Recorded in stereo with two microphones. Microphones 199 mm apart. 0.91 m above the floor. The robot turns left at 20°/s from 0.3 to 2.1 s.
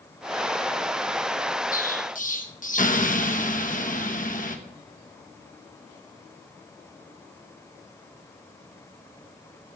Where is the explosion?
45° left (ahead or behind), 0.9 m.